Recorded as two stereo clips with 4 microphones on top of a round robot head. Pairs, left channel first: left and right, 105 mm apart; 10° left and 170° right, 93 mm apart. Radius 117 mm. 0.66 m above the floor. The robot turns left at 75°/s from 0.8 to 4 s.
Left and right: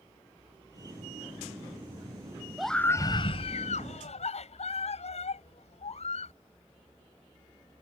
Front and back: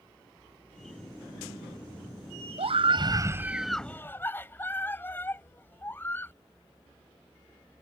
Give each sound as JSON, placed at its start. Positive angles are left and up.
{"t": 2.6, "sound": "a scream", "azimuth_deg": -175}